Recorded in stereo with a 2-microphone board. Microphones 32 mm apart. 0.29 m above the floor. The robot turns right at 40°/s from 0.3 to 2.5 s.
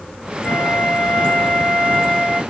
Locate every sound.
0.4 s a flute: straight behind, 1.5 m; by 2.4 s 100° right, 1.5 m